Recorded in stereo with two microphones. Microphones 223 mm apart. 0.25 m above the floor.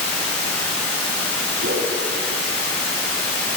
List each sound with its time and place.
0.0 s running water: 5° left (ahead or behind), 3 m
1.6 s a whoosh: 55° right (ahead or behind), 1.0 m